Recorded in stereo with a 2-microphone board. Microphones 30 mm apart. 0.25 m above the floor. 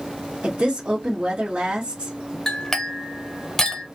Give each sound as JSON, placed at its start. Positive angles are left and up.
{"t": 0.4, "sound": "a woman speaking", "side_deg": -40, "distance_m": 1.3}
{"t": 2.5, "sound": "a clink", "side_deg": 20, "distance_m": 0.8}